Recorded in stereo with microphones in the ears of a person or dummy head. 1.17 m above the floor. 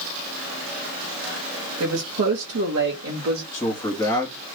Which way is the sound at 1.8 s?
65° right (ahead or behind).